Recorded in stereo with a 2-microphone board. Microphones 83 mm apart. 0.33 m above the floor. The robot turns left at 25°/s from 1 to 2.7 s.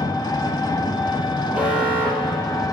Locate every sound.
0.0 s an engine running: 105° left, 1.8 m; by 2.7 s 60° left, 1.8 m
1.5 s an alarm: 10° right (ahead or behind), 7.5 m; by 2.6 s 40° right (ahead or behind), 7.5 m